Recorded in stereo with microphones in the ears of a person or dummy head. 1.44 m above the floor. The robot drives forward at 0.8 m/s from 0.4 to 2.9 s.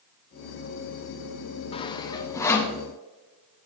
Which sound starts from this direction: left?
Sawing, at 1.7 s.